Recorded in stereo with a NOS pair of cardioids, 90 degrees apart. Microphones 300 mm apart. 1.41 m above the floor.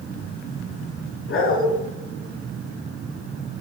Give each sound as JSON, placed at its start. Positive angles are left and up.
{"t": 1.3, "sound": "a dog barking", "azimuth_deg": 45, "distance_m": 6.0}